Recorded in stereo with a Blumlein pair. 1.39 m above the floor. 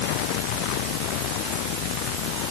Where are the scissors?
No scissors in this recording.